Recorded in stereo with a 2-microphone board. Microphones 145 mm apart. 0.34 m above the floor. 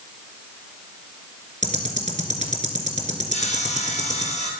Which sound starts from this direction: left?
Sawing, at 3.3 s.